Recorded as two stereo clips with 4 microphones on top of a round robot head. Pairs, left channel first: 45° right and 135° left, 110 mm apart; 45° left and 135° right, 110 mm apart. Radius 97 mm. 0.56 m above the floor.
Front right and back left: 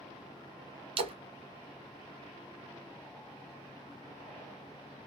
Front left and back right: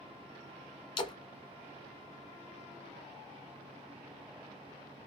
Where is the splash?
95° left, 1.0 m.